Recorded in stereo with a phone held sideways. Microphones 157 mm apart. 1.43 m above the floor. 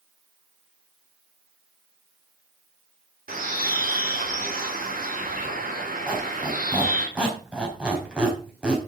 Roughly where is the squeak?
Centre.